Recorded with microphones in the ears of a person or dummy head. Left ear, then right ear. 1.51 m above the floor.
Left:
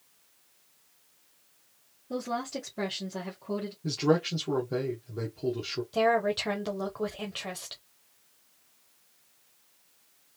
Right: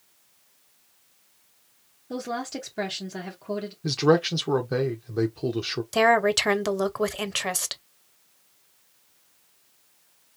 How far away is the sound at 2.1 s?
About 1.5 m.